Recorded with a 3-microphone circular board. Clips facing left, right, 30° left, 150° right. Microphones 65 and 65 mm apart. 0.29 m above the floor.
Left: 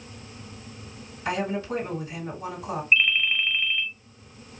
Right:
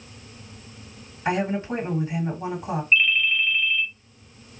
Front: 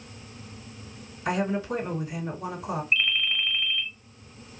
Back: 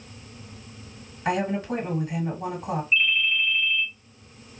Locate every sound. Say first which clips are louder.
1.2 s a woman speaking: right 3 dB, back 1 dB; 140° right, 2 m
2.9 s a ringtone: right 1 dB, back 3 dB; 45° left, 0.8 m